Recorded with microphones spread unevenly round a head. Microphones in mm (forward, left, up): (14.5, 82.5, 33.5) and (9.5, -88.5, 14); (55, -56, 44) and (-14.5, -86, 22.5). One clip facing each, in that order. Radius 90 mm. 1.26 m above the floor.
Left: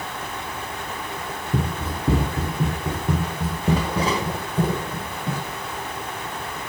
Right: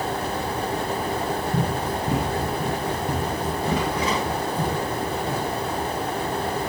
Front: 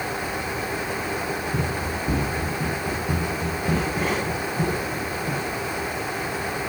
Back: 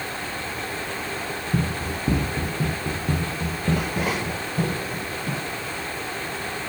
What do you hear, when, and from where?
1.5 s running footsteps: 130° left, 1.5 m; by 5.4 s 145° left, 3.5 m